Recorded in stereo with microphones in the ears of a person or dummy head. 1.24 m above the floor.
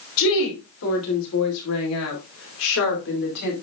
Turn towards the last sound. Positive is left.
turn(degrees=60)  # may be behind; listen again after turning